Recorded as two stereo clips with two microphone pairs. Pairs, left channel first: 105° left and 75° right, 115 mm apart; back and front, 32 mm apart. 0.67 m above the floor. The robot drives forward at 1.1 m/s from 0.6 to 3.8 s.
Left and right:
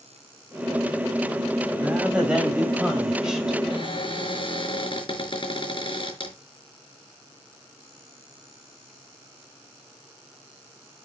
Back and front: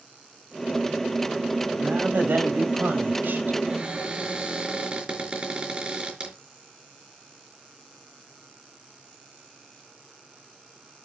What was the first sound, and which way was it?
A woman speaking, 5° left.